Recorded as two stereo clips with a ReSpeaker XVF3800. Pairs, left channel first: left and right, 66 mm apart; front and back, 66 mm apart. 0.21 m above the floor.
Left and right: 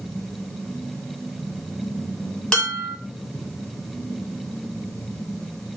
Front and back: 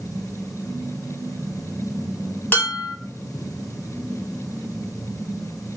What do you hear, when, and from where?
2.5 s dishes clattering: 20° left, 0.9 m